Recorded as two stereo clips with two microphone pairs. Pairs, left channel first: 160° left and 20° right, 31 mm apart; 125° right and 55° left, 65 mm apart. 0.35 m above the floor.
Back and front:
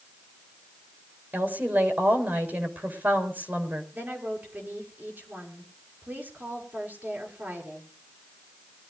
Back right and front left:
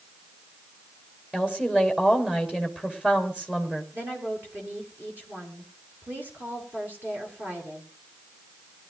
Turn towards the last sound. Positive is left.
turn(degrees=-5)